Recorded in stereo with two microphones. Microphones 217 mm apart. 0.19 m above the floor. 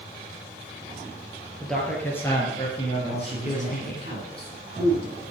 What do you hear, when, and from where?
1.6 s a man speaking: centre (ahead or behind), 4 m; by 4.0 s 45° left (ahead or behind), 3 m
3.0 s a man speaking: 35° right (ahead or behind), 6.5 m